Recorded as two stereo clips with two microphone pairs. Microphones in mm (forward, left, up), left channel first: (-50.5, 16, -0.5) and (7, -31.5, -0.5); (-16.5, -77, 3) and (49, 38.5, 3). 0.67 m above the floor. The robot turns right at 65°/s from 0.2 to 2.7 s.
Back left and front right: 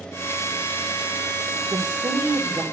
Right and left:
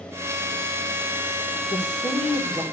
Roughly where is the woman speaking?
Right.